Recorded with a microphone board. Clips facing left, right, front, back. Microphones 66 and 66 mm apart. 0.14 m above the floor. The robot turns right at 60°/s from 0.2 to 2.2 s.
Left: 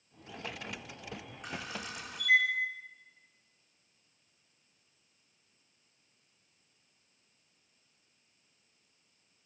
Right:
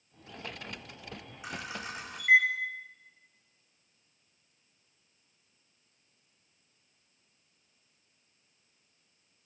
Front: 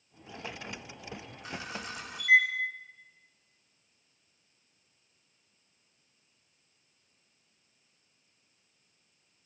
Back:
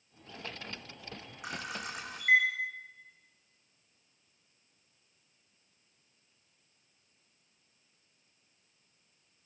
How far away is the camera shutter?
About 6.5 m.